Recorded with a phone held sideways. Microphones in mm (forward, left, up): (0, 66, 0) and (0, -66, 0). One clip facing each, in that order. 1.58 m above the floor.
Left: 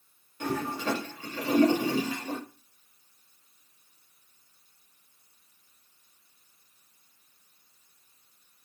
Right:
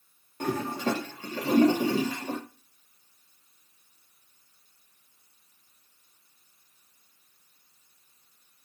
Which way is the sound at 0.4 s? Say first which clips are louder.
Right 2 dB; 40° right (ahead or behind).